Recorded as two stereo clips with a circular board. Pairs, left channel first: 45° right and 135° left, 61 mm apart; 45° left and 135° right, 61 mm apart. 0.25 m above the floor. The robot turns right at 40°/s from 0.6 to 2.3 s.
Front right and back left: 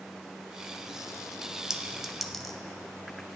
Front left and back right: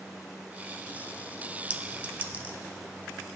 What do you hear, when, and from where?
1.7 s a clink: 155° right, 0.7 m; by 2.6 s 130° right, 0.7 m